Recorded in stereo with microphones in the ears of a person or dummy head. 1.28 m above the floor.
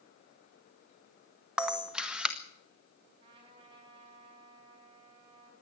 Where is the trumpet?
30° right (ahead or behind), 6 m.